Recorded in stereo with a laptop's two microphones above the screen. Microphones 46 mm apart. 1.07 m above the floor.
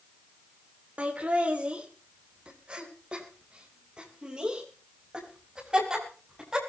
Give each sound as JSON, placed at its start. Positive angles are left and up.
{"t": 1.0, "sound": "laughter", "side_deg": -30, "distance_m": 3.0}